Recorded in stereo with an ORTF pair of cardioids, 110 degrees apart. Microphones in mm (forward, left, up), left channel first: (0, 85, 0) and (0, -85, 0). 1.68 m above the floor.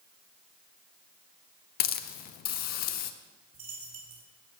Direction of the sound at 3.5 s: 35° right.